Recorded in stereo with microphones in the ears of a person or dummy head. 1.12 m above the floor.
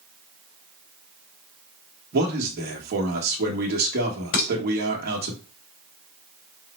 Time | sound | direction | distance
2.1 | a man speaking | 50° right (ahead or behind) | 1.2 m
4.3 | dishes clattering | 50° left (ahead or behind) | 3.5 m